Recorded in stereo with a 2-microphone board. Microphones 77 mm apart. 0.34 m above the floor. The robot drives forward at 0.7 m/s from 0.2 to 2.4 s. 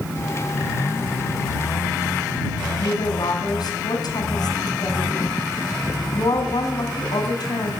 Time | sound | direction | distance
2.8 | a woman speaking | 60° left (ahead or behind) | 3 m